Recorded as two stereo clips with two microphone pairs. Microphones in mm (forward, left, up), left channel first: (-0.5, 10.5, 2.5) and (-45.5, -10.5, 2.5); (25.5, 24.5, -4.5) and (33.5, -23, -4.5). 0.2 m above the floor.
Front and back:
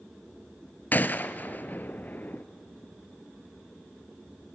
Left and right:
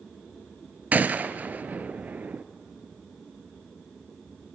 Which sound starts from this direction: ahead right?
A gunshot, at 0.9 s.